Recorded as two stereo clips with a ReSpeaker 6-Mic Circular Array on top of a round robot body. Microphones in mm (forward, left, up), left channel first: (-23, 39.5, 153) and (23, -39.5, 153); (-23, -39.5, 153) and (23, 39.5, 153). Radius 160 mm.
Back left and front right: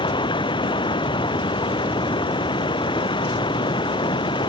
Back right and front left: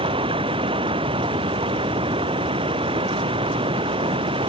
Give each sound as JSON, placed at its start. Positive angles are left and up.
{"t": 0.0, "sound": "running water", "azimuth_deg": 85}